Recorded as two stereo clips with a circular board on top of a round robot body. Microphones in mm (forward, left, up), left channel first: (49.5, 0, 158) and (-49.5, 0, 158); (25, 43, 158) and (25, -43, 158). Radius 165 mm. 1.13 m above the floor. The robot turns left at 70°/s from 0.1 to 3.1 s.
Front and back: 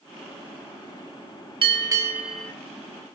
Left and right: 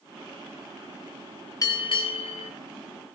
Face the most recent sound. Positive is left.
turn(degrees=40)